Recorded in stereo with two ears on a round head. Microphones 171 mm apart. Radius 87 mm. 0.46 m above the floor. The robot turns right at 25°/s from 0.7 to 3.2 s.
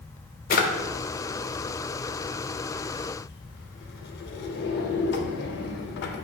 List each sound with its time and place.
0.5 s a drawer: 45° left (ahead or behind), 0.5 m; by 6.2 s 60° left (ahead or behind), 0.5 m